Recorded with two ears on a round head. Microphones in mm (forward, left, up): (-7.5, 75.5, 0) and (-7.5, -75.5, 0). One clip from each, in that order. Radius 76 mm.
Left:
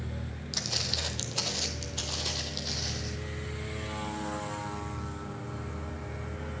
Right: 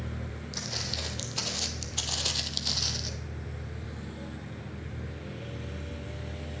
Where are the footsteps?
30° left (ahead or behind), 1.6 m; by 3.1 s 50° right (ahead or behind), 1.8 m.